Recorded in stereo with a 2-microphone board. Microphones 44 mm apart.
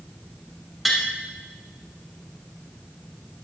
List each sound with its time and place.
0.8 s tapping: centre (ahead or behind), 3 m